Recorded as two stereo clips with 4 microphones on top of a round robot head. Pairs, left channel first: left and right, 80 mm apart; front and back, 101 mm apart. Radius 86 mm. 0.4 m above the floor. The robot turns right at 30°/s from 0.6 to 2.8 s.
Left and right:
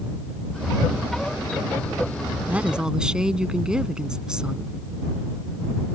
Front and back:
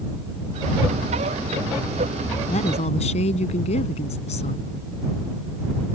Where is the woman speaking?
20° right; by 4.8 s 10° right.